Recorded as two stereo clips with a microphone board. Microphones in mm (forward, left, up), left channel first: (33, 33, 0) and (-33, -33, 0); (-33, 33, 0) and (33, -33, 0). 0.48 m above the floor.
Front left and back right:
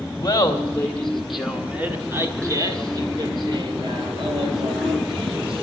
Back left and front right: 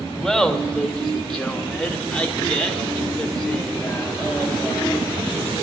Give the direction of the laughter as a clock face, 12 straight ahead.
11 o'clock.